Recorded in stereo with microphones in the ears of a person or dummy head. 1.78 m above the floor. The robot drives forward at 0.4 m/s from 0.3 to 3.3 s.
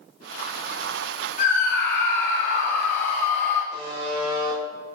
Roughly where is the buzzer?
Right.